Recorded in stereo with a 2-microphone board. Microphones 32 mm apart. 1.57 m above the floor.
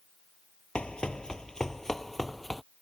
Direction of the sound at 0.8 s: 35° left (ahead or behind).